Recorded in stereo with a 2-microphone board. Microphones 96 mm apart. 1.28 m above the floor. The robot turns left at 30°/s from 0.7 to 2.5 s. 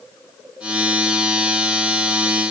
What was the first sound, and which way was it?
Only background noise.